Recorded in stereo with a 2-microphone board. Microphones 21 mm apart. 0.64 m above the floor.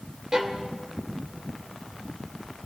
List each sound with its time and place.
0.3 s a violin: 30° right (ahead or behind), 1.9 m